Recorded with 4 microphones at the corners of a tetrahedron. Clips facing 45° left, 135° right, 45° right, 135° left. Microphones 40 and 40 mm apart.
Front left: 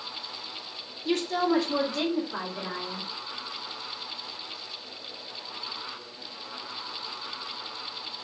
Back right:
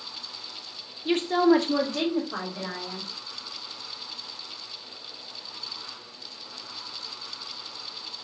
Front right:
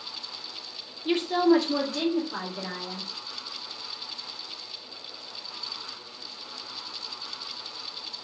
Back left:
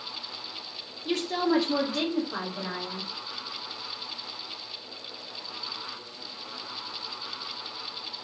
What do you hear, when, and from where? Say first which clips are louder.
1.1 s a woman speaking: back right 5 dB, front right 5 dB; 85° right, 0.6 m; by 3.1 s 170° right, 2.5 m